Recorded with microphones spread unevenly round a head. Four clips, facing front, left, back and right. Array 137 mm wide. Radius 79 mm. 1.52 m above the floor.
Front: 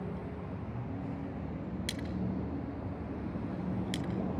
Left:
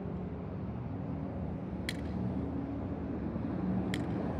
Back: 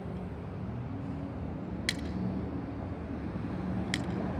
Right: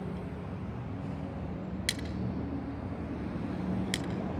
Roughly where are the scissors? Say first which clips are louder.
Even, back 2 dB; behind right.